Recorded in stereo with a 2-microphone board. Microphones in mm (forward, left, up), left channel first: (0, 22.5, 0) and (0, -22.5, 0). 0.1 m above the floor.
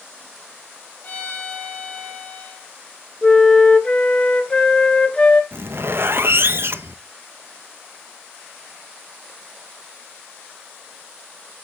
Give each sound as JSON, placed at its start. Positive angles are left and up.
{"t": 1.0, "sound": "a violin", "side_deg": 40, "distance_m": 2.5}
{"t": 3.2, "sound": "a flute", "side_deg": 20, "distance_m": 1.0}
{"t": 5.5, "sound": "a zipper", "side_deg": -60, "distance_m": 0.7}